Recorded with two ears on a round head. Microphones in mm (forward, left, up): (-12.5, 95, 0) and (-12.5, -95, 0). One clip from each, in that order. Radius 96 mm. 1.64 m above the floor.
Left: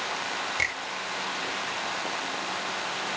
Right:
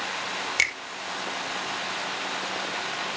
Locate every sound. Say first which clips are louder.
0.6 s a finger snap: right 5 dB; 70° right (ahead or behind), 1.9 m